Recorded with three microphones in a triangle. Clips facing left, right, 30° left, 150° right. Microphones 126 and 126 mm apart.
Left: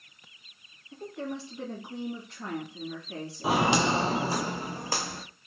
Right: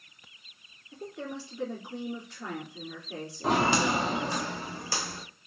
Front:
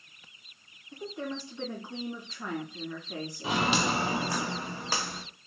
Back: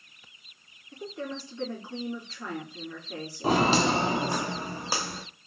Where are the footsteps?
175° left, 0.6 m; by 5.2 s 130° left, 1.4 m.